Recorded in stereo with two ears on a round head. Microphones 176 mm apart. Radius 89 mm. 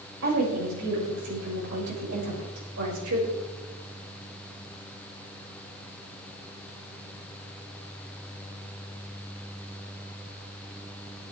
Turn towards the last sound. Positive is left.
turn(degrees=-85)